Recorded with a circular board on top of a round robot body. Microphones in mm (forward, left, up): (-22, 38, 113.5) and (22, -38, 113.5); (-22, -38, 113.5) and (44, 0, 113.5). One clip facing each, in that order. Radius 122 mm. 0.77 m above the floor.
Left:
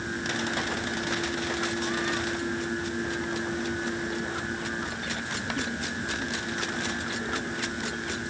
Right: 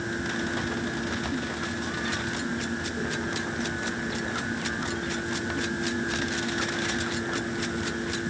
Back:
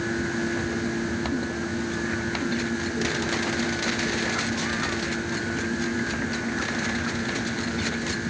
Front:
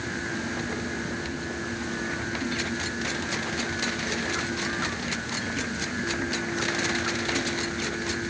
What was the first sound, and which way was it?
Only background noise.